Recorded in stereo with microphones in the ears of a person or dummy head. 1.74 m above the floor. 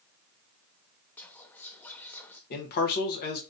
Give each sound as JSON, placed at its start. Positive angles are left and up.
{"t": 1.2, "sound": "whispering", "side_deg": 10, "distance_m": 0.6}
{"t": 2.5, "sound": "a man speaking", "side_deg": 50, "distance_m": 1.1}